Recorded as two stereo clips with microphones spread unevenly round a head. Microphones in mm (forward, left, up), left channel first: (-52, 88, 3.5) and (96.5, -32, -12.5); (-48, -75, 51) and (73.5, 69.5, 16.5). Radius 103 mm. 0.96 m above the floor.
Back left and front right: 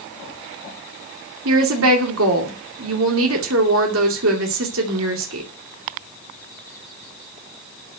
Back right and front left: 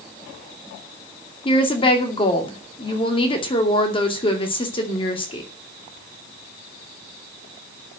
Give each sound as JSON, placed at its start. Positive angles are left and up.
{"t": 1.4, "sound": "a woman speaking", "azimuth_deg": -65, "distance_m": 2.5}